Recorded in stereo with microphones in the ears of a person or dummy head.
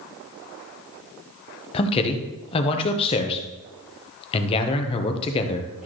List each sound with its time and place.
1.7 s a man speaking: 30° left (ahead or behind), 1.0 m